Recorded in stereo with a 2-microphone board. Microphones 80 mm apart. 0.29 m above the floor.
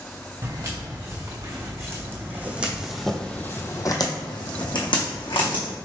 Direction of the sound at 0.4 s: 45° right (ahead or behind).